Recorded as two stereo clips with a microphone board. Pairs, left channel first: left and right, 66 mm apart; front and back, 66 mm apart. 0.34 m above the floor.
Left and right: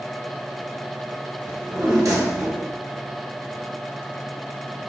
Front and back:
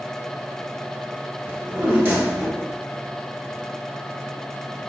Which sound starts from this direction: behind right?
A drawer, at 1.5 s.